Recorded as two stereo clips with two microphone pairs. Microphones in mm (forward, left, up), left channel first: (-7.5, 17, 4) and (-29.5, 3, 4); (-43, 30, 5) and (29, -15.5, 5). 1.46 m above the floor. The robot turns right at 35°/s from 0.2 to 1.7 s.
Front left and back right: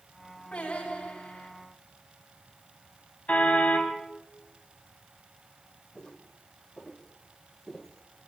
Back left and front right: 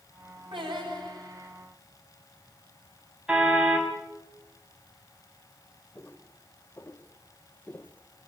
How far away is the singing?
About 10 m.